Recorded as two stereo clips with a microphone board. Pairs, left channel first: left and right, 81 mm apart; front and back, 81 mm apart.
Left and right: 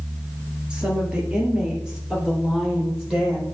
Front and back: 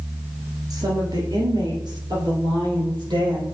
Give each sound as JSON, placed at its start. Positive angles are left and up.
{"t": 0.7, "sound": "a woman speaking", "azimuth_deg": -165, "distance_m": 1.9}